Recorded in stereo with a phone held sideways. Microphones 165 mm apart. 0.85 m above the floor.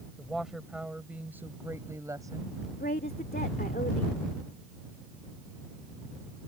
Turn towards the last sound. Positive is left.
turn(degrees=75)  # may be behind; listen again after turning